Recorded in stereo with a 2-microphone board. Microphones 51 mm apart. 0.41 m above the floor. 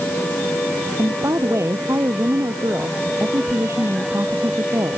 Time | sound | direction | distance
1.0 | a woman speaking | 65° right (ahead or behind) | ?